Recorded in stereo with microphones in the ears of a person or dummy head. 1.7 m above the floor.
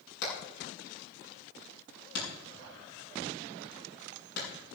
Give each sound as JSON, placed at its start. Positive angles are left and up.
{"t": 0.2, "sound": "hammering", "side_deg": 55, "distance_m": 8.5}